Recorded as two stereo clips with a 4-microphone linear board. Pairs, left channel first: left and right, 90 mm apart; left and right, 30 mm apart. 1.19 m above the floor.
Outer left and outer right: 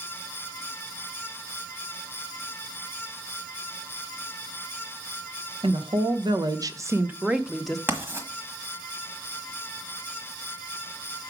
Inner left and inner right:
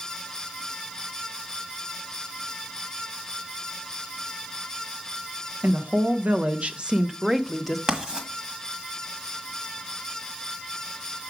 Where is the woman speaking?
70° right (ahead or behind), 1.0 m; by 7.8 s 5° left (ahead or behind), 0.8 m.